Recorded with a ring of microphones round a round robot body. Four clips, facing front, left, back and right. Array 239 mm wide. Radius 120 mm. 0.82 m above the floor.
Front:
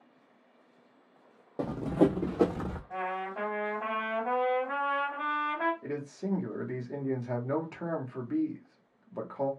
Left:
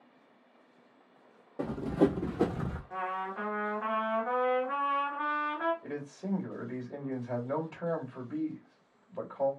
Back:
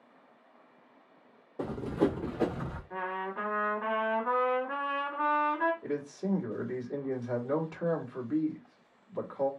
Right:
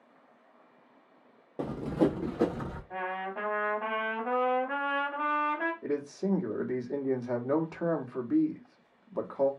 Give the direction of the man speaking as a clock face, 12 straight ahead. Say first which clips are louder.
Right 7 dB, back 2 dB; 2 o'clock.